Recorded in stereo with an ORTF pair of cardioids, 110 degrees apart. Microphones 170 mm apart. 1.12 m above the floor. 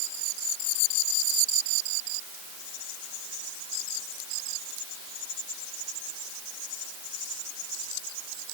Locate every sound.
Only background noise.